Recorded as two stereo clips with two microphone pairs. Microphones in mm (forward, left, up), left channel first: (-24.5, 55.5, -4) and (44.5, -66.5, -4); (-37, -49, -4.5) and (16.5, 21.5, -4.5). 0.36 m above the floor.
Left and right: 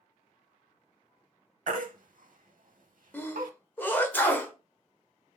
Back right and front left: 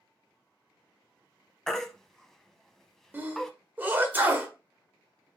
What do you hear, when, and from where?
1.7 s a baby crying: 45° right, 0.7 m
3.1 s a sneeze: 70° left, 1.2 m